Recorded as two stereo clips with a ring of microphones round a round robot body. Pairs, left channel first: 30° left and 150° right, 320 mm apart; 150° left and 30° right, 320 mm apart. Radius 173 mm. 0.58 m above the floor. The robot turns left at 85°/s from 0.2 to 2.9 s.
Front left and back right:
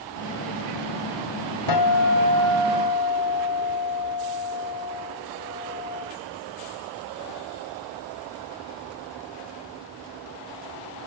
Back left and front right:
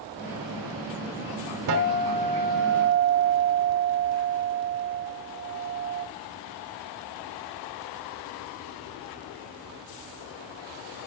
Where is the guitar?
10° left, 2 m; by 6.1 s 95° right, 2 m.